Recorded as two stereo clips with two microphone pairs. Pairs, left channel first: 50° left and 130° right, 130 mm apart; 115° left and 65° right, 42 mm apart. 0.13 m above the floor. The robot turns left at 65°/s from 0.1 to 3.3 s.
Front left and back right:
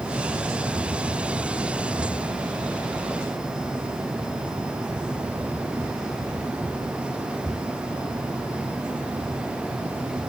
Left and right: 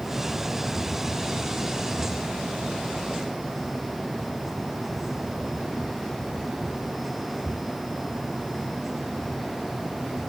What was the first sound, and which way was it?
Only background noise.